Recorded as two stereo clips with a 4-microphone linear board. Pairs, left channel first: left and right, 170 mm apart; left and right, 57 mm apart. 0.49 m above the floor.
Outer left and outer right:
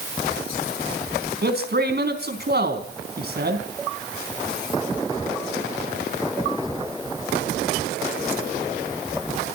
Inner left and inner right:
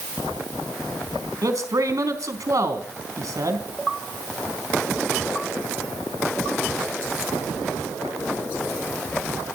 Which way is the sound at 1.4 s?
75° right (ahead or behind).